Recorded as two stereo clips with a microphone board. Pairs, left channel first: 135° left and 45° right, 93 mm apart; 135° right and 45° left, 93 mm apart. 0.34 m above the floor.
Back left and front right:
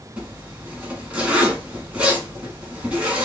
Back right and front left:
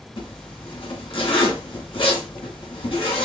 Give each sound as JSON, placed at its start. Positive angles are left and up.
{"t": 0.2, "sound": "a zipper", "azimuth_deg": -120, "distance_m": 1.3}